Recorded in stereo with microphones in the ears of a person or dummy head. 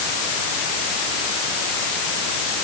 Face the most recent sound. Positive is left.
No sound to turn to.